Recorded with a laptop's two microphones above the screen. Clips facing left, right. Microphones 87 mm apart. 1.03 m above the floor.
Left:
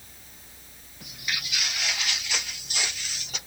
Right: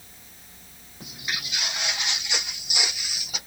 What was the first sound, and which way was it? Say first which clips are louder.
Footsteps: right 1 dB; 30° right (ahead or behind).